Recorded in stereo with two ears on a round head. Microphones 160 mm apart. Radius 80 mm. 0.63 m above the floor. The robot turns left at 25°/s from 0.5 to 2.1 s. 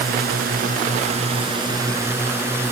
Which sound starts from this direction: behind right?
A drone, at 0.0 s.